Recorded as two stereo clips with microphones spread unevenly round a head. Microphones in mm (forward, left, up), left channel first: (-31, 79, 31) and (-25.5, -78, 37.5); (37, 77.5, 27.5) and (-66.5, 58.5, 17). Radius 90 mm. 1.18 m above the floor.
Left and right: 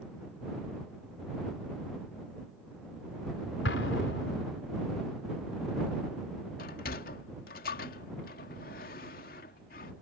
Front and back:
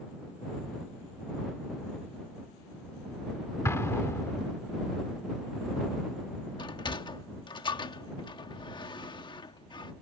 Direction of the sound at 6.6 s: 50° left.